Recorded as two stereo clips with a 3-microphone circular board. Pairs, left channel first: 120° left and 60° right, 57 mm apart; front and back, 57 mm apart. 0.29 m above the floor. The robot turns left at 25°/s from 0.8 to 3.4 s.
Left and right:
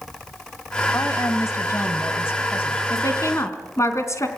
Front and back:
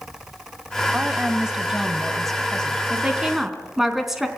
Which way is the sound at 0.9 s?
120° left.